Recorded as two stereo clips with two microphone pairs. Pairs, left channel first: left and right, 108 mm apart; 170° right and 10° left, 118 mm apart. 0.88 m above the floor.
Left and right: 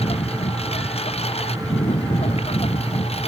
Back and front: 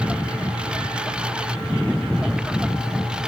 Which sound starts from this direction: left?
A lawn mower, at 0.0 s.